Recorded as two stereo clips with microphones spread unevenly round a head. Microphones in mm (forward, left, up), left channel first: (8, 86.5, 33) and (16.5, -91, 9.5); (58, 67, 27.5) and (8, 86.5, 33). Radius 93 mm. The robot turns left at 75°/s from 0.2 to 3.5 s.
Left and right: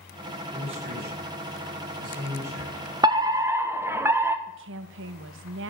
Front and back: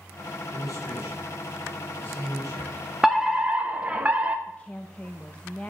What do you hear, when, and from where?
0.5 s a man speaking: 15° right, 6 m; by 2.9 s 160° left, 6 m
3.0 s a fire alarm: 105° right, 1.3 m; by 4.4 s 140° right, 1.3 m
4.5 s a woman speaking: 100° right, 1.0 m